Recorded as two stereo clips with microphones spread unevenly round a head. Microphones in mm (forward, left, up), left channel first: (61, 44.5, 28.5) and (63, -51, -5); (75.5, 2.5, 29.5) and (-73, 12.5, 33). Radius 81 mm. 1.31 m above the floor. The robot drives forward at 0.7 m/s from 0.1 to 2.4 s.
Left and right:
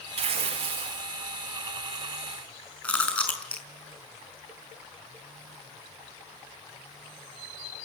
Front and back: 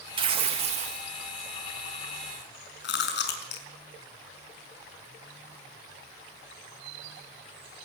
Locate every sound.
0.2 s tearing paper: 125° right, 2 m; by 1.1 s 135° right, 2.5 m
2.8 s chewing: 15° left, 5 m